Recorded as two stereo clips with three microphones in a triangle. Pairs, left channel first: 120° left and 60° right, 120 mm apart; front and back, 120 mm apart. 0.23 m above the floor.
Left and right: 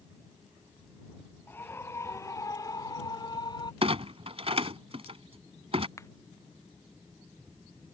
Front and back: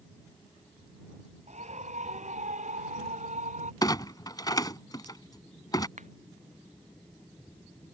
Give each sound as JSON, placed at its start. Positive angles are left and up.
{"t": 1.5, "sound": "a scream", "azimuth_deg": -165}
{"t": 3.8, "sound": "a clunk", "azimuth_deg": -50}
{"t": 6.0, "sound": "a finger snap", "azimuth_deg": -175}